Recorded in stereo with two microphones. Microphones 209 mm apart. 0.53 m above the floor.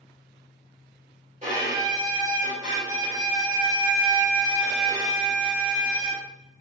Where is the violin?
35° right (ahead or behind), 1.4 m.